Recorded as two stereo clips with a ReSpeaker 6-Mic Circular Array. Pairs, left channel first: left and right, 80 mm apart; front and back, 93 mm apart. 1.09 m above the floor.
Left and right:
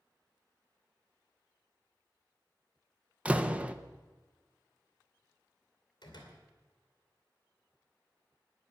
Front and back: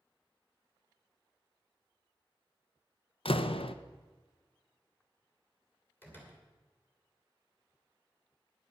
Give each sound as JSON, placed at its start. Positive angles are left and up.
{"t": 3.2, "sound": "a door slam", "azimuth_deg": -15, "distance_m": 0.7}
{"t": 6.0, "sound": "a door slam", "azimuth_deg": 70, "distance_m": 3.0}